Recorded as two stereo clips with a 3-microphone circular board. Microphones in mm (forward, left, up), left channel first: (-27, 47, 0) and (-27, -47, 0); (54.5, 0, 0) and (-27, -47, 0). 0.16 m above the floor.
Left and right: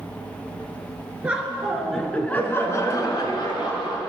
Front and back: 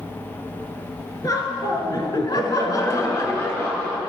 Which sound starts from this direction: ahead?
Laughter, at 1.2 s.